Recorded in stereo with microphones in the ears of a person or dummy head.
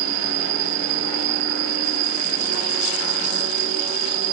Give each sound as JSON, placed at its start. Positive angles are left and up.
{"t": 0.0, "sound": "an insect", "side_deg": -60}